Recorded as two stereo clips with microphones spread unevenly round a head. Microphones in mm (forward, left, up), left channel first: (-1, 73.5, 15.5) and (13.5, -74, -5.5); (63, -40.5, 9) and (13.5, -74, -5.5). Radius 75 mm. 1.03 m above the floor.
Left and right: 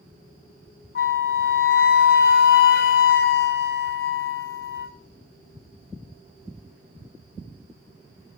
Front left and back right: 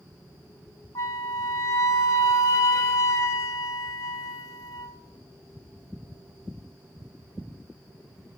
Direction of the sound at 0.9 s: 80° left.